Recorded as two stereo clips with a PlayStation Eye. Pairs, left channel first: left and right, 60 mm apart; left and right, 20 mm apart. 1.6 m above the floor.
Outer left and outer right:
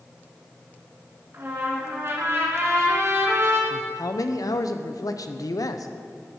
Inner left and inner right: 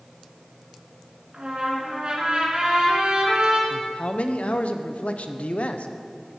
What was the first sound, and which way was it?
A trumpet, 45° right (ahead or behind).